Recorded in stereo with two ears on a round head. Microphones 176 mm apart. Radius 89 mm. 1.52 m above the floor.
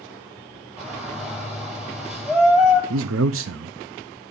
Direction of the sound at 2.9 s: 75° right (ahead or behind).